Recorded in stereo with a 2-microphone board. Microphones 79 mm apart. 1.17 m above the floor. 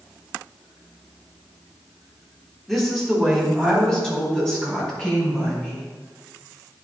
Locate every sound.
2.7 s a woman speaking: centre (ahead or behind), 1.9 m; by 5.9 s 15° left (ahead or behind), 5.5 m